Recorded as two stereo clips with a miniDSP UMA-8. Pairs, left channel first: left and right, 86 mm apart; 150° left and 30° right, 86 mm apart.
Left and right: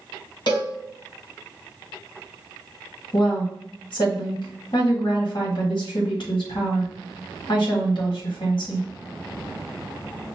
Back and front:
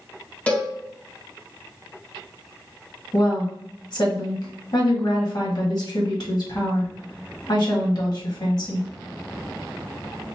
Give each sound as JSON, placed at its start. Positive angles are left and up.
{"t": 0.5, "sound": "a cowbell", "azimuth_deg": 80, "distance_m": 1.2}
{"t": 3.1, "sound": "a woman speaking", "azimuth_deg": 115, "distance_m": 1.5}